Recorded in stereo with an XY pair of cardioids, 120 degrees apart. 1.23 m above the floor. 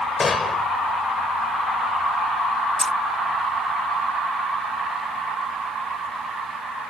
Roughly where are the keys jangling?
Ahead.